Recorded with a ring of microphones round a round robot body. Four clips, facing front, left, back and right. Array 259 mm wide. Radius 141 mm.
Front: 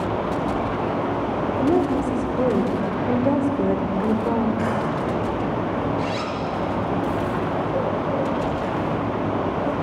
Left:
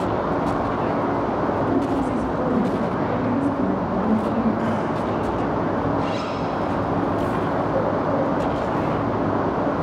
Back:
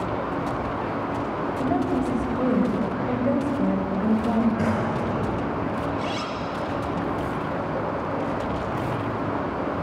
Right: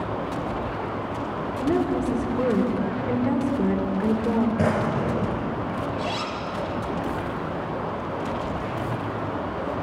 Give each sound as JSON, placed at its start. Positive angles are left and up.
{"t": 1.6, "sound": "a woman speaking", "azimuth_deg": -15, "distance_m": 3.0}
{"t": 4.6, "sound": "a drawer", "azimuth_deg": -80, "distance_m": 5.5}
{"t": 6.0, "sound": "a zipper", "azimuth_deg": -60, "distance_m": 3.5}